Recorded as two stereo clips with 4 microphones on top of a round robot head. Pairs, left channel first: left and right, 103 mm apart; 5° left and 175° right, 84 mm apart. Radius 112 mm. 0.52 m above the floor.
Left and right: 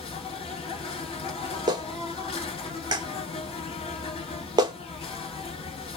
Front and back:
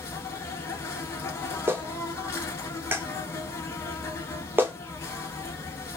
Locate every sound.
0.0 s an insect: 65° left, 0.9 m
1.7 s a clap: 120° right, 0.8 m